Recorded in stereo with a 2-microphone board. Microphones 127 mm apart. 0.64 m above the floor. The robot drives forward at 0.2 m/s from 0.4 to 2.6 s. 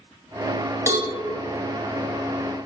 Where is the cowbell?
25° right (ahead or behind), 0.5 m.